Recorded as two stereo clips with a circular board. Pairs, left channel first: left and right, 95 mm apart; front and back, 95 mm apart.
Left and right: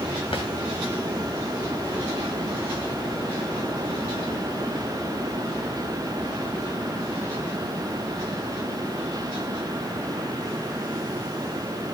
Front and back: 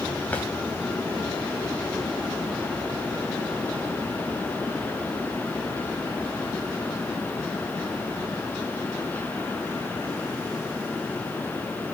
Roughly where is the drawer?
Left.